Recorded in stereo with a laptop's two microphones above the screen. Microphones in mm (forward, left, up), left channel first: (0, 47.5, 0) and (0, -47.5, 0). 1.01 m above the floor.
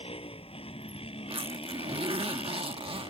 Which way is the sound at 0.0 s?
90° left.